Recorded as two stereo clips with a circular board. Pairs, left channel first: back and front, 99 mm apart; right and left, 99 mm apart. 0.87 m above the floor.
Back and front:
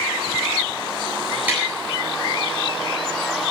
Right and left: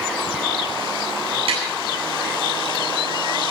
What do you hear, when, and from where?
1.5 s tapping: 75° left, 9.5 m